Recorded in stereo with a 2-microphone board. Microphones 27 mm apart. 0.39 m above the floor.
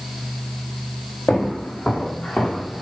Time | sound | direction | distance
1.3 | footsteps | 50° left (ahead or behind) | 4 m